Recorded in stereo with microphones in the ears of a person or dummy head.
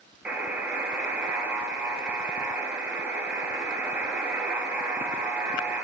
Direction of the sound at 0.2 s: 15° right (ahead or behind).